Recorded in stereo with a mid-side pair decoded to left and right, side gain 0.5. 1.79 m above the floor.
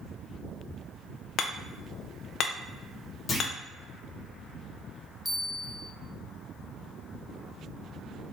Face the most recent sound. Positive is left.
turn(degrees=-5)